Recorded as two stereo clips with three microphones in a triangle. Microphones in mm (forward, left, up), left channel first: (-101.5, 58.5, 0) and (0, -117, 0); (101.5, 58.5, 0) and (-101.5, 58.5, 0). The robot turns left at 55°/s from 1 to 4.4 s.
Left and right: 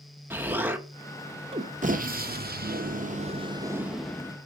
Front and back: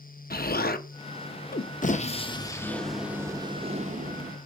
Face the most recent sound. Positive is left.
turn(degrees=-170)